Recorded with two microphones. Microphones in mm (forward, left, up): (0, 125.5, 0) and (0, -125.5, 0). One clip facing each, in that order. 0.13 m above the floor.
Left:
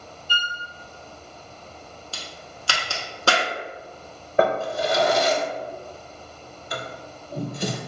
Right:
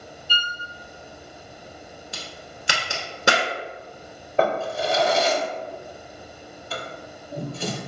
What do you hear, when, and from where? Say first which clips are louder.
0.3 s a violin: even; 15° left (ahead or behind), 0.6 m
2.1 s a crack: right 1 dB; 20° right (ahead or behind), 0.7 m
4.4 s a drawer: left 1 dB; 15° left (ahead or behind), 0.6 m